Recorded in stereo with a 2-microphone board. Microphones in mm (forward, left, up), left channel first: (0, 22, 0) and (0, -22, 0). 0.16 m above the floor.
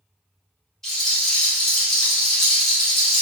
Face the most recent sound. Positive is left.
turn(degrees=5)  # may be behind; listen again after turning